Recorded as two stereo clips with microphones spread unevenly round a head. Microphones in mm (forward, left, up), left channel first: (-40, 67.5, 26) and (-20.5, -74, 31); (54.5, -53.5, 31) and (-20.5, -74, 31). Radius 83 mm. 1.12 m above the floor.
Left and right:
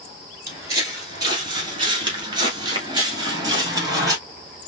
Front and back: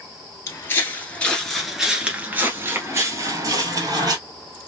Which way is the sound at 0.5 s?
20° right.